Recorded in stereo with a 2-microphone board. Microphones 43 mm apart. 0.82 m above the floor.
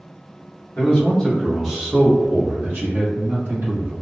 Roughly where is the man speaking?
Left.